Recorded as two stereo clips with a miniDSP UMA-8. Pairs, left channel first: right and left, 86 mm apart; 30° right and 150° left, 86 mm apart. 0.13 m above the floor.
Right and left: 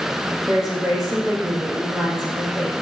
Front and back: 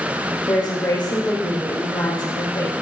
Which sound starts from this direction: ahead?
A woman speaking, at 0.5 s.